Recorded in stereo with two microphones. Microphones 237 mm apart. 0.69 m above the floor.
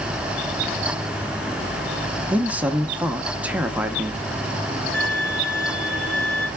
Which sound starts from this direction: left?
A violin, at 4.9 s.